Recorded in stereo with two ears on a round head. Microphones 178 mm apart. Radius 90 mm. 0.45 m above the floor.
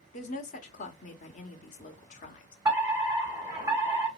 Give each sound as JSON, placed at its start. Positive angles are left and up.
{"t": 0.1, "sound": "a woman speaking", "side_deg": 40, "distance_m": 1.1}
{"t": 2.6, "sound": "a fire alarm", "side_deg": -15, "distance_m": 2.0}